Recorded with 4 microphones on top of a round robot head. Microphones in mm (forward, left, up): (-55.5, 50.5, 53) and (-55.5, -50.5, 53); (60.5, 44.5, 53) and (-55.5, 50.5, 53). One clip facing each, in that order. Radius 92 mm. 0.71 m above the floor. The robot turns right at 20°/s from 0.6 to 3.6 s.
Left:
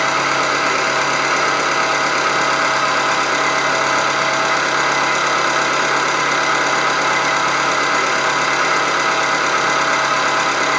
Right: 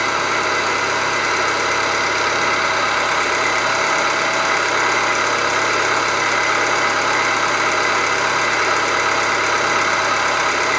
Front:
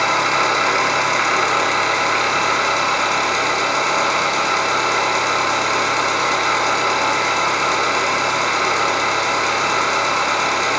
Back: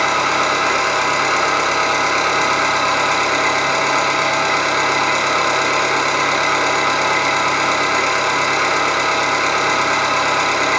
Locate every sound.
0.0 s an engine running: 100° left, 0.9 m; by 10.8 s 160° left, 0.9 m